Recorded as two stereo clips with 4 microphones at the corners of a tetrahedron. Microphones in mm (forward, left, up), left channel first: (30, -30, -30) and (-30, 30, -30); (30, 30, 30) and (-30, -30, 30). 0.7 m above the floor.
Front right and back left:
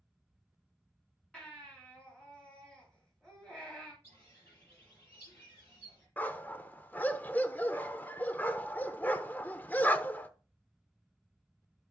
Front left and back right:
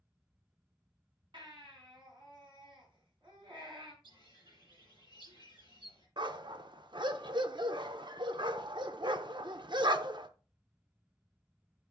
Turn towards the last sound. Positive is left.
turn(degrees=-115)